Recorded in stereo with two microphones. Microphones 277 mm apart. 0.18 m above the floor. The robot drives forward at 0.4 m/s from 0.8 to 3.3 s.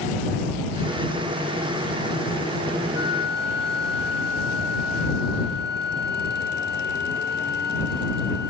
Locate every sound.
3.0 s a flute: 45° left (ahead or behind), 1.8 m; by 8.5 s 40° left (ahead or behind), 1.9 m